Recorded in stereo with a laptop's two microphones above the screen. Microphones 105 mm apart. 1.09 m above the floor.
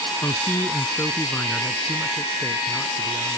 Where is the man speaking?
15° left (ahead or behind); by 3.4 s 10° left (ahead or behind).